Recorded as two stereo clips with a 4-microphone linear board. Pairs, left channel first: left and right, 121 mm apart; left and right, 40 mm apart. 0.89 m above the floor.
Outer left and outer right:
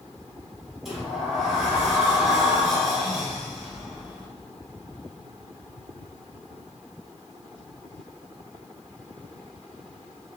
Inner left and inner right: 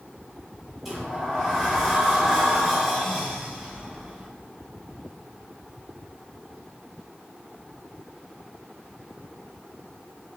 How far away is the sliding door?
About 0.8 m.